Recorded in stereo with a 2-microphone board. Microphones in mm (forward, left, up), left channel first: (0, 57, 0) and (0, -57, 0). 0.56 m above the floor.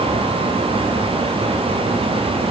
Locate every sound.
Only background noise.